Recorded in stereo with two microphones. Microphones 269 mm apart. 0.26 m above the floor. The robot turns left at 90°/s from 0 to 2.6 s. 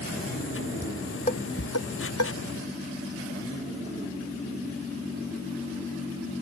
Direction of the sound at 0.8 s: 10° right (ahead or behind).